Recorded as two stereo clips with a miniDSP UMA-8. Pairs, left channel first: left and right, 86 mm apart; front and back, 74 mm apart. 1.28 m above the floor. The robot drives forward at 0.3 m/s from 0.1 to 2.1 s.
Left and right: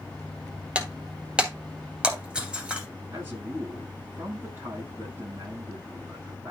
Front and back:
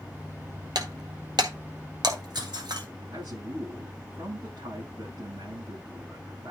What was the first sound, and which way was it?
Breaking glass, 165° right.